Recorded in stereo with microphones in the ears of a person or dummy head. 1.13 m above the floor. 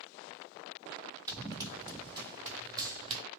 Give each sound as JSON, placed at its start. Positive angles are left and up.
{"t": 1.3, "sound": "running footsteps", "side_deg": -10, "distance_m": 1.2}